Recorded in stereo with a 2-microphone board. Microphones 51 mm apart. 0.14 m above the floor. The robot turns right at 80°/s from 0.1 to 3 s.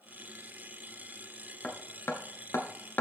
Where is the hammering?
25° left (ahead or behind), 0.9 m; by 3.0 s 35° left (ahead or behind), 0.9 m.